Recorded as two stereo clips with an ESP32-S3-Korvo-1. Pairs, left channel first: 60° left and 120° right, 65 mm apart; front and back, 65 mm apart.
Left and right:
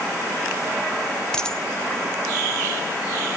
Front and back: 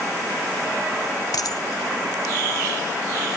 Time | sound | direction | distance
1.3 | a dropped coin | 20° right | 1.4 m